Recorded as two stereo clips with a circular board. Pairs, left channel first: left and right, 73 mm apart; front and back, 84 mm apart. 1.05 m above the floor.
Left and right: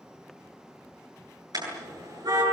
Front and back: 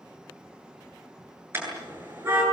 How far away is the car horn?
About 9.5 m.